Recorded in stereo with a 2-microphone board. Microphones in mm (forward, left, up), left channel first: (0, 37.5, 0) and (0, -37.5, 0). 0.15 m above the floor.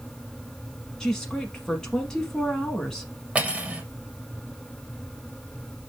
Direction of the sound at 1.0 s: 10° left (ahead or behind).